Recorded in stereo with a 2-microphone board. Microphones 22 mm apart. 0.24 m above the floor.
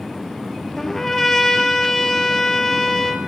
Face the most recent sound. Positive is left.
turn(degrees=15)  # may be behind; listen again after turning